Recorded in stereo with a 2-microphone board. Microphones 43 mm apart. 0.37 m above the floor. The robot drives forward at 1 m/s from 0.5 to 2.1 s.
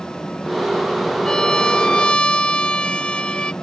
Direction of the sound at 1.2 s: 15° left (ahead or behind).